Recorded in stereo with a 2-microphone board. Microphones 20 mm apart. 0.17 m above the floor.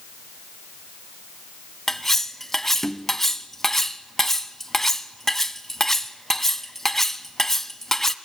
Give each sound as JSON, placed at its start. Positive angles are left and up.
{"t": 1.9, "sound": "cutlery clinking", "side_deg": 15, "distance_m": 0.8}